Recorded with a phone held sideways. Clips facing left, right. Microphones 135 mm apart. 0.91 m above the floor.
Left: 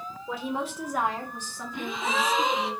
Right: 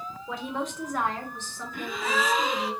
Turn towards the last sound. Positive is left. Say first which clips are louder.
# even
turn(degrees=20)  # may be behind; listen again after turning